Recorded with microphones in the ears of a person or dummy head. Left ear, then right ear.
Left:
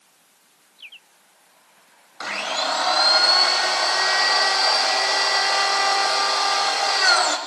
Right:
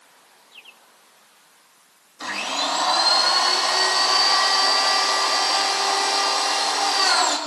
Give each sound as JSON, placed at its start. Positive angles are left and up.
{"t": 2.2, "sound": "a blender", "side_deg": 65, "distance_m": 3.5}